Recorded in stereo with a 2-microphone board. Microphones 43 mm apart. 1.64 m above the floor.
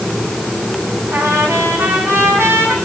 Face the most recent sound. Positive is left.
turn(degrees=-70)  # may be behind; listen again after turning